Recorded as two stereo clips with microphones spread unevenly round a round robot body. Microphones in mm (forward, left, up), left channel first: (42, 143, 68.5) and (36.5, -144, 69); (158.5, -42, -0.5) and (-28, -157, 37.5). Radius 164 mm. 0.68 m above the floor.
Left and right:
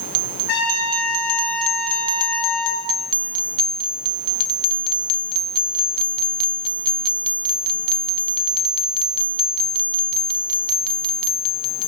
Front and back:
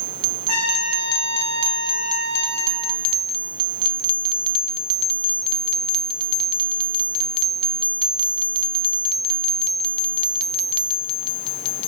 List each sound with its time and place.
0.5 s a trumpet: 50° left, 9 m